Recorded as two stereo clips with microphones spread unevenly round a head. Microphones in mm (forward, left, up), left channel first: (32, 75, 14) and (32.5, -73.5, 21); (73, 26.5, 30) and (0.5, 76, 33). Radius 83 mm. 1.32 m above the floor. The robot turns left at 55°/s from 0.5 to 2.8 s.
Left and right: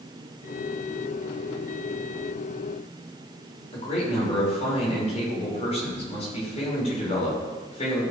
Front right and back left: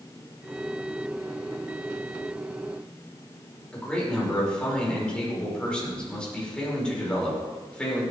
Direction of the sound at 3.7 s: 45° left.